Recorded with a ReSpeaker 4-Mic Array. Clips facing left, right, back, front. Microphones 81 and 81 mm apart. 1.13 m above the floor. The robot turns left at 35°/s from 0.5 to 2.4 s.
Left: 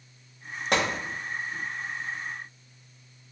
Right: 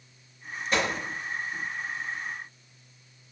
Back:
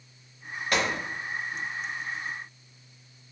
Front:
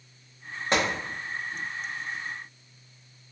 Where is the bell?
I don't hear a bell.